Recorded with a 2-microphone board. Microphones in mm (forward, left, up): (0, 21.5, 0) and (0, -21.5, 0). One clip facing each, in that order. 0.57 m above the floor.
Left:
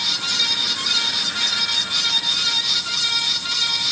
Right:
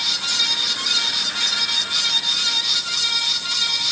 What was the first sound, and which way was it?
Only background noise.